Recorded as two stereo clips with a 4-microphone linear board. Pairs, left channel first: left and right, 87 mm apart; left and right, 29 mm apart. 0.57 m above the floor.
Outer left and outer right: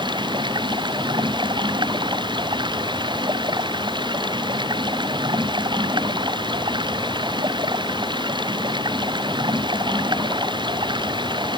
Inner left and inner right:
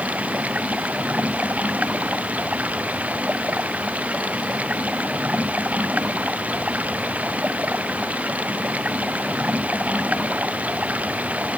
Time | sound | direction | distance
0.0 | running water | 65° right (ahead or behind) | ?